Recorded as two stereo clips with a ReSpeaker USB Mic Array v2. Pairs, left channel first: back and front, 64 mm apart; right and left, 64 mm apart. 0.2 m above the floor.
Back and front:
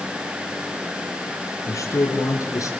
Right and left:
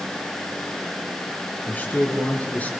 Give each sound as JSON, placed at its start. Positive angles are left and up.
{"t": 1.7, "sound": "a man speaking", "azimuth_deg": -150, "distance_m": 4.0}